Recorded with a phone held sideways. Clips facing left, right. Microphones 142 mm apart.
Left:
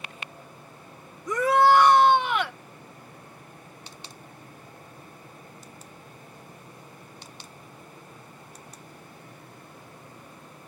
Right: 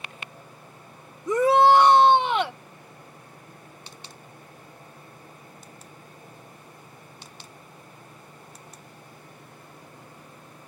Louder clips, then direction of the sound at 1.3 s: Right 2 dB; 25° right (ahead or behind).